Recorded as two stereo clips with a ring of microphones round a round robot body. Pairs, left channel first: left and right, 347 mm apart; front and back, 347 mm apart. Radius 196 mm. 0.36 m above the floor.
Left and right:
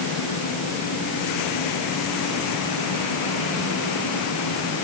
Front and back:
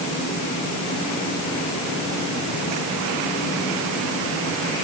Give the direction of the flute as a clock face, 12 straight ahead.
I don't hear a flute.